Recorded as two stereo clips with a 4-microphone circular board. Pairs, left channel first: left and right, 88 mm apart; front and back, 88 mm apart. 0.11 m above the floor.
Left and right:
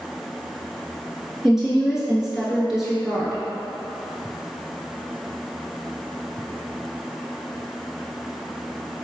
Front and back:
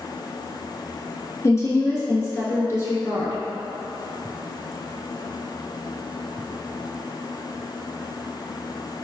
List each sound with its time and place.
1.4 s a woman speaking: 10° right, 1.2 m